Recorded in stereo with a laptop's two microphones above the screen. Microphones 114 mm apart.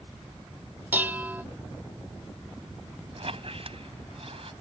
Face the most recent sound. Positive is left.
turn(degrees=-60)  # may be behind; listen again after turning